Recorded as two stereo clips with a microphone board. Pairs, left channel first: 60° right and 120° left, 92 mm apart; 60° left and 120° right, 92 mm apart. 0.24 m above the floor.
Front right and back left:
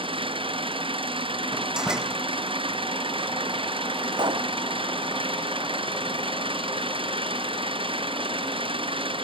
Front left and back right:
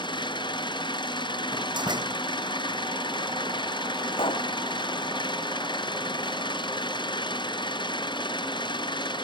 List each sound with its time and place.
0.0 s an engine running: 95° left
1.5 s a door slam: 160° right
4.1 s a pop: 85° left